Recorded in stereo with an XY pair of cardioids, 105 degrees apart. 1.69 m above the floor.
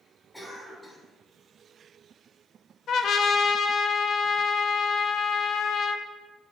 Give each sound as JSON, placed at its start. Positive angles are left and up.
{"t": 0.3, "sound": "a cough", "azimuth_deg": 5, "distance_m": 3.0}
{"t": 2.9, "sound": "a trumpet", "azimuth_deg": 55, "distance_m": 0.6}